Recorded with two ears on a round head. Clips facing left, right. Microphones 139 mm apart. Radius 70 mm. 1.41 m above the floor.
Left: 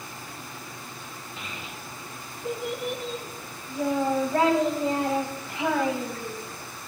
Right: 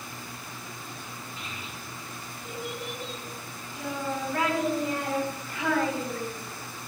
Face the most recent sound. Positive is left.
turn(degrees=15)  # may be behind; listen again after turning